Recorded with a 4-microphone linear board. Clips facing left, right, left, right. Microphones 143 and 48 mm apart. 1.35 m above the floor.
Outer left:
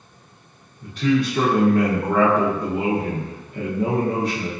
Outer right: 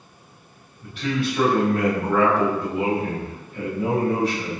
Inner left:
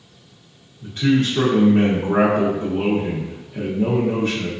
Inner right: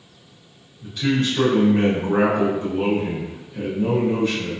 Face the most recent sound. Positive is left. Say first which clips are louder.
# outer left 5 dB, inner left 3 dB
turn(degrees=40)  # may be behind; listen again after turning